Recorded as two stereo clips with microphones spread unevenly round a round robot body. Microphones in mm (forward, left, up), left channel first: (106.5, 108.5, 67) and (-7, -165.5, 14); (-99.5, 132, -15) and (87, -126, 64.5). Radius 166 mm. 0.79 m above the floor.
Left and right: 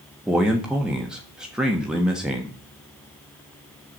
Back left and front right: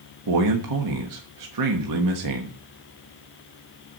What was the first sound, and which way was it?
A man speaking, 35° right.